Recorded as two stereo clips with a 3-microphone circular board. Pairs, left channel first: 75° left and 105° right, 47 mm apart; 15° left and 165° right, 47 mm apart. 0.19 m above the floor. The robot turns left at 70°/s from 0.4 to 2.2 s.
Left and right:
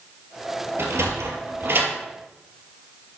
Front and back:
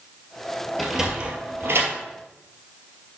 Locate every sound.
0.8 s a sliding door: 70° right, 2 m; by 1.9 s 150° right, 2 m